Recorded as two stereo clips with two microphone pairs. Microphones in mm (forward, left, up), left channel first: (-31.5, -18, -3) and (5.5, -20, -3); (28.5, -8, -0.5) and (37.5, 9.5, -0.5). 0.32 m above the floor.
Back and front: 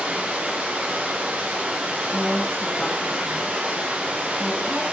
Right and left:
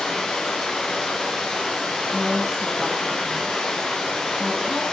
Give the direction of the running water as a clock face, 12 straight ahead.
2 o'clock.